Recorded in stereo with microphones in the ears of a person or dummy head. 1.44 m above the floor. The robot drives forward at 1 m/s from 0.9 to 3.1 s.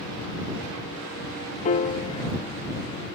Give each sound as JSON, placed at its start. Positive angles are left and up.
{"t": 1.6, "sound": "a piano", "side_deg": 35}